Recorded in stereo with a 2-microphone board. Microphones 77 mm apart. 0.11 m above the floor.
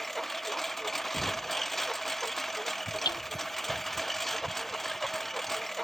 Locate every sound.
0.0 s a lawn mower: centre (ahead or behind)
1.1 s knocking: 20° left (ahead or behind)
3.0 s hammering: 65° left (ahead or behind)